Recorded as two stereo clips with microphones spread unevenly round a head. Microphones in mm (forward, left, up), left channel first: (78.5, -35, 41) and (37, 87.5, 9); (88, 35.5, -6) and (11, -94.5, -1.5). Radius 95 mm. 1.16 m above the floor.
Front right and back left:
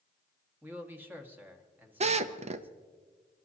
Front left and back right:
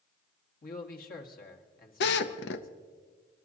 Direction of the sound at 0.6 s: 35° left.